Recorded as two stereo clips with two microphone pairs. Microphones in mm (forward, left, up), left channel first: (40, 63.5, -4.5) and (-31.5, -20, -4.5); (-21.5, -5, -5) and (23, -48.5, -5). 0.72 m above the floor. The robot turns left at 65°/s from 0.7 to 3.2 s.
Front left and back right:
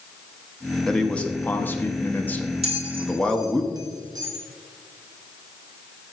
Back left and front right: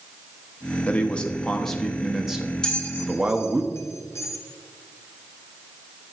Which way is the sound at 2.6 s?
145° right.